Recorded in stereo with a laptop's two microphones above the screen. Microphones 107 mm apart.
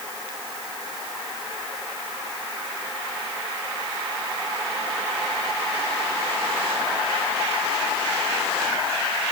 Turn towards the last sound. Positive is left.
No sound to turn to.